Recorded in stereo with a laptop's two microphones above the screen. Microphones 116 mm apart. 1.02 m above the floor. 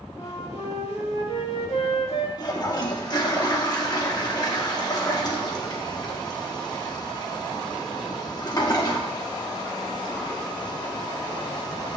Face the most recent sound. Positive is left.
turn(degrees=35)  # may be behind; listen again after turning